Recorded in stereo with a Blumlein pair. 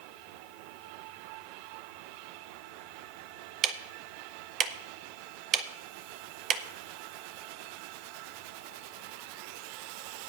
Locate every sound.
3.6 s ticking: 30° right, 0.8 m